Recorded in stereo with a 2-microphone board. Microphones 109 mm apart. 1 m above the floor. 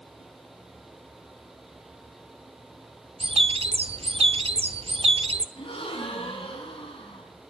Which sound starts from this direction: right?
A bird, at 3.2 s.